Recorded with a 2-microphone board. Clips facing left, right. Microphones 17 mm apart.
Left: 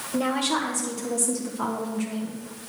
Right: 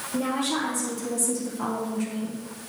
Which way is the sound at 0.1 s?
30° left (ahead or behind).